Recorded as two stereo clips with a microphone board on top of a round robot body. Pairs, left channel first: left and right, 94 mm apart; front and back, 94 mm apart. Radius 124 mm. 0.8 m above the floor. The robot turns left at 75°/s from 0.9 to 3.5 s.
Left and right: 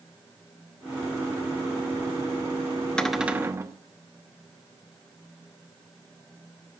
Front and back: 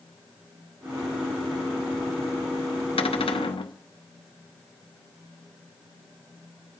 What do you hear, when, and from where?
3.0 s a cupboard door: 10° left, 1.0 m; by 3.8 s 30° right, 1.0 m